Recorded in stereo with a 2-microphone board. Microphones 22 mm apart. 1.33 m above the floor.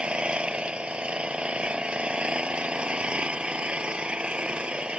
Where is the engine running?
55° right (ahead or behind).